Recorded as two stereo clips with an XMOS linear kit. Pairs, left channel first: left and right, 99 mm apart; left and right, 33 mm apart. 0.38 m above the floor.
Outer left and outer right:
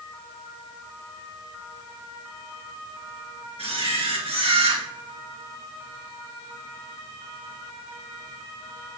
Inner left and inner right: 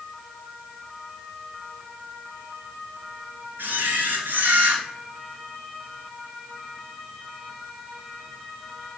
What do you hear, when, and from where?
3.6 s a camera shutter: 80° right, 2 m